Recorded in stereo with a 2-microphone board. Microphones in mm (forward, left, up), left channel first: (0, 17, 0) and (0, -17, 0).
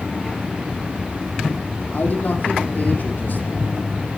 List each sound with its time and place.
1.9 s a man speaking: 60° left (ahead or behind), 4.5 m